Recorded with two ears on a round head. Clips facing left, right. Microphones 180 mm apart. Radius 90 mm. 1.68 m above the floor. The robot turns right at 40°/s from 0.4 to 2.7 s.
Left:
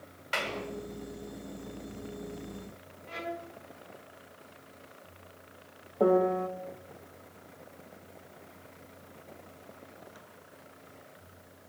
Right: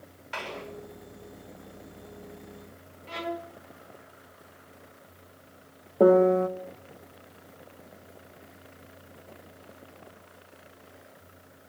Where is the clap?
65° left (ahead or behind), 7 m; by 0.6 s 75° left (ahead or behind), 7 m.